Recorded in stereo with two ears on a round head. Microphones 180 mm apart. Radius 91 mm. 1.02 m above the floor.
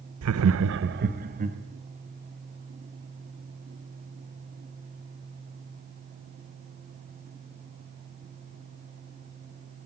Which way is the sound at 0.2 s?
80° right.